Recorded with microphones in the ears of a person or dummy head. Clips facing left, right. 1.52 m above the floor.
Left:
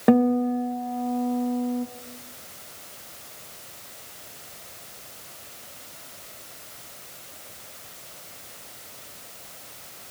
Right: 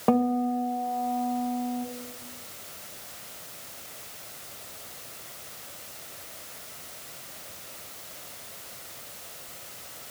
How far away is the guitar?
About 1.0 m.